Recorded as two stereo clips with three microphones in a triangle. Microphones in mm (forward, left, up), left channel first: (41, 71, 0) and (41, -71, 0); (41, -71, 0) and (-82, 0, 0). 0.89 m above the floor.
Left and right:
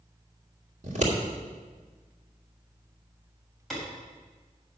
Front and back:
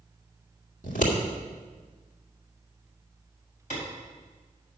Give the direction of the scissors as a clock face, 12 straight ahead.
2 o'clock.